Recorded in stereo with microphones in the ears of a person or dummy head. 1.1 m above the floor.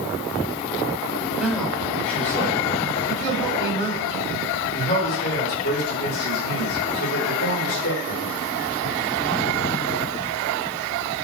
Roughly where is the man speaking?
Centre.